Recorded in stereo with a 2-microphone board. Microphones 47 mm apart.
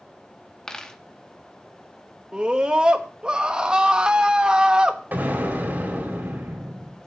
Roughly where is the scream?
Centre.